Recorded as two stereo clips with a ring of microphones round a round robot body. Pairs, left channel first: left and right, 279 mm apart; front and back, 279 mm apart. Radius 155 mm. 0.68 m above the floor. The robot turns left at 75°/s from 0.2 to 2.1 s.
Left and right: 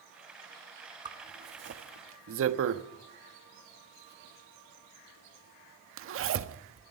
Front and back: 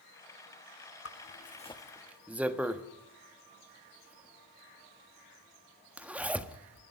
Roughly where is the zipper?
Ahead.